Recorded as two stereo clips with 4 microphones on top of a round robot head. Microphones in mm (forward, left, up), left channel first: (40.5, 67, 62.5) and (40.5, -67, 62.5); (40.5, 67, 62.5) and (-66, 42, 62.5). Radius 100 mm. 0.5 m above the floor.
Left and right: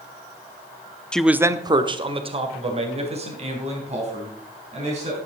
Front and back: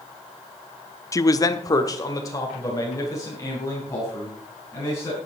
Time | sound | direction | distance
1.1 | a man speaking | 15° left | 0.8 m